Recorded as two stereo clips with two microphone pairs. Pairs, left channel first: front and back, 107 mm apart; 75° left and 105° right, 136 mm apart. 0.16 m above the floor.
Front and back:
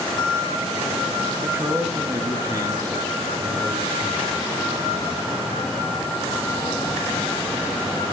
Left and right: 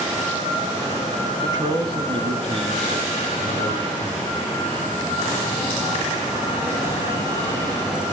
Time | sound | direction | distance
1.4 | a man speaking | 135° right | 1.6 m